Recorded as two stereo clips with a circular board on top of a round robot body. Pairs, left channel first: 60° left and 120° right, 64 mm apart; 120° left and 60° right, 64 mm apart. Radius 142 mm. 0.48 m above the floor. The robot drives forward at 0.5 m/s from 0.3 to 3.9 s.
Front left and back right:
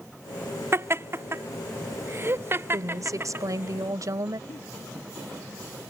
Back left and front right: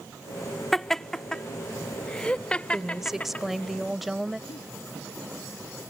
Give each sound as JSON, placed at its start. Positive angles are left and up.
{"t": 0.7, "sound": "laughter", "azimuth_deg": -155}
{"t": 2.7, "sound": "a woman speaking", "azimuth_deg": -145}
{"t": 4.5, "sound": "a giggle", "azimuth_deg": 100}